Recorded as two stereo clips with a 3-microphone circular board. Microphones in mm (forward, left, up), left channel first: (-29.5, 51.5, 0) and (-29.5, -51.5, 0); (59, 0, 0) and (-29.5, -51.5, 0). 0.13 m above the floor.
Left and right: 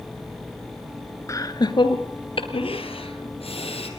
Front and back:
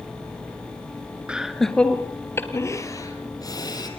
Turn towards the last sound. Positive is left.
turn(degrees=80)